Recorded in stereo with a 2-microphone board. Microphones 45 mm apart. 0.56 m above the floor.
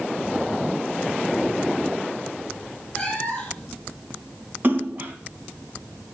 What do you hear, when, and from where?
3.0 s a cat meowing: 20° left (ahead or behind), 3 m
4.6 s a splash: 45° right (ahead or behind), 3 m